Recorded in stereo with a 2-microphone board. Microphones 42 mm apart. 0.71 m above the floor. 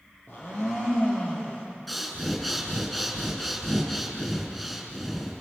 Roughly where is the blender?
Left.